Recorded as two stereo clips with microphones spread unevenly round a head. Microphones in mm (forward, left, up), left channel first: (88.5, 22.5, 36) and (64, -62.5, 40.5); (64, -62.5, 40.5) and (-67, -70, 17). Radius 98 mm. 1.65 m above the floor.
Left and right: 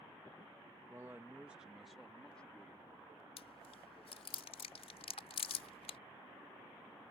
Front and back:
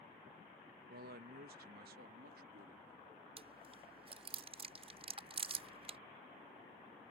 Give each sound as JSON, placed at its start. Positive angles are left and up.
{"t": 0.9, "sound": "a man speaking", "azimuth_deg": 180}
{"t": 3.4, "sound": "chewing", "azimuth_deg": 120}